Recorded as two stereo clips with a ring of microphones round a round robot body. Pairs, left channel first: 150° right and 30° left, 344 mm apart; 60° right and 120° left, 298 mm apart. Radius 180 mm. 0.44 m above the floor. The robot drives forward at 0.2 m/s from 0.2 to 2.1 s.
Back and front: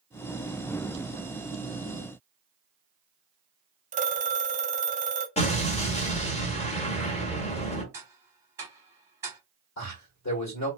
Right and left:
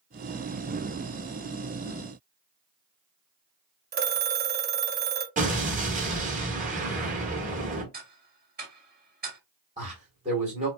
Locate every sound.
3.9 s a phone ringing: 90° left, 0.6 m
5.4 s an explosion: 155° left, 0.7 m
7.9 s ticking: 105° left, 1.0 m
9.8 s a man speaking: 175° right, 1.7 m